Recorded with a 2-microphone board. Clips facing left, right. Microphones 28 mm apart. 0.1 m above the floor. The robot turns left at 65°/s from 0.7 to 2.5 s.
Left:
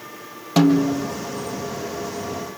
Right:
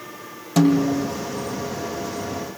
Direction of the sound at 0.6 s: 30° left (ahead or behind).